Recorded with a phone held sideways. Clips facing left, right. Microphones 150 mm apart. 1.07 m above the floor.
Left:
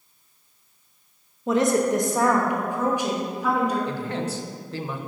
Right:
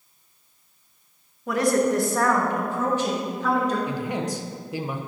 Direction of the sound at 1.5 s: 25° left (ahead or behind).